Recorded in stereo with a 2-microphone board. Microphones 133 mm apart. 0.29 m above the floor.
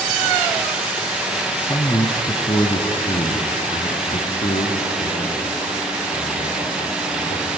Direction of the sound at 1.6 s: 15° left (ahead or behind).